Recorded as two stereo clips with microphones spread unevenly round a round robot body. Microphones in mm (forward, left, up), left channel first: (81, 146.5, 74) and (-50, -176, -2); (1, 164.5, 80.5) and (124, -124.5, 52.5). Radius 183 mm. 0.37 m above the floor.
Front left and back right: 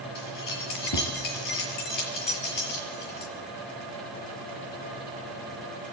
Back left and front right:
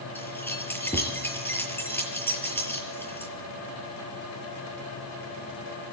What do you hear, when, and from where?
0.1 s keys jangling: 30° left, 6.5 m